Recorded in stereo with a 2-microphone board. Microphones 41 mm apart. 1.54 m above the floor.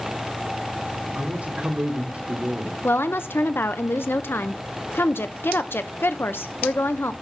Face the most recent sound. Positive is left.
turn(degrees=60)  # may be behind; listen again after turning